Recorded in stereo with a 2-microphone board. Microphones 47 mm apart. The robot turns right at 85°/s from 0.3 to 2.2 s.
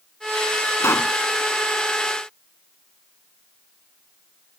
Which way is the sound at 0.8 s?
80° left.